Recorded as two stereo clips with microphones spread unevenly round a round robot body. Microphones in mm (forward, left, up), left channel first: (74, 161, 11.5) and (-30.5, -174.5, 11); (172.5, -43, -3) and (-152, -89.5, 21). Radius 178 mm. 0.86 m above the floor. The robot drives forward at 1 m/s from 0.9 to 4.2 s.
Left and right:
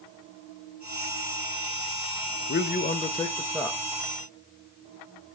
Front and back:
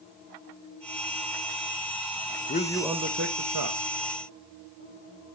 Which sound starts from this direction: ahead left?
A man speaking, at 2.5 s.